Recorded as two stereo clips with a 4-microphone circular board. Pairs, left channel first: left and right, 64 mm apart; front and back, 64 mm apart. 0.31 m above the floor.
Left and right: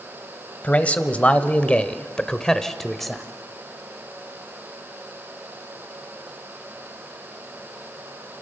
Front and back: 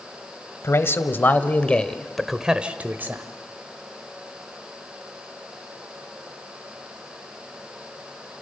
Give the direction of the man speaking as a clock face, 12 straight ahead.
11 o'clock.